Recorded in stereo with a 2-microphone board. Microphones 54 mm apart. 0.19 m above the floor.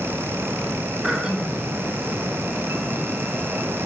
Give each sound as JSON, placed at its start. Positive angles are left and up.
{"t": 1.0, "sound": "throat clearing", "side_deg": -15, "distance_m": 2.0}